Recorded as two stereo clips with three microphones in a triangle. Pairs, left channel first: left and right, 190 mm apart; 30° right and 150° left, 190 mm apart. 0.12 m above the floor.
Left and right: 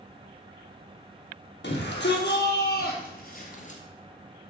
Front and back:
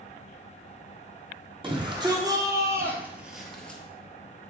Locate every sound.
1.6 s a shout: 90° left, 3 m; by 3.8 s 50° left, 1.7 m